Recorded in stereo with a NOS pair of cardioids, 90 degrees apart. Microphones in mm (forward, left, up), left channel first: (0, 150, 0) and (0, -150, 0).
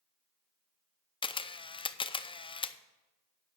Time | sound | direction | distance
1.2 | a camera shutter | 15° left | 0.5 m